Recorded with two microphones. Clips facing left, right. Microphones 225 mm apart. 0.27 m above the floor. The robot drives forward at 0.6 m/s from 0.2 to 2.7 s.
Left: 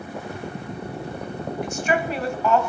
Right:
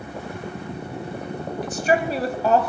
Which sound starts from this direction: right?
A woman speaking, at 1.6 s.